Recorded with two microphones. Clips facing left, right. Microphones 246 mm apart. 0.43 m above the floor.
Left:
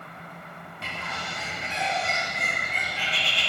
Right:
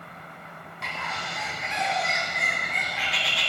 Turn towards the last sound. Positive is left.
turn(degrees=30)  # may be behind; listen again after turning